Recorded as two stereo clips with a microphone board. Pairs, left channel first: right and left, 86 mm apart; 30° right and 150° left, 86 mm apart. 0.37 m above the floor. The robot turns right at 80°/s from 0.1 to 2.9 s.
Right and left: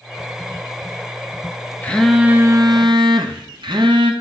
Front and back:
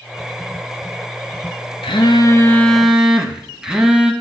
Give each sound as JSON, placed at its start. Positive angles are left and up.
{"t": 1.8, "sound": "a phone buzzing", "azimuth_deg": -20, "distance_m": 1.1}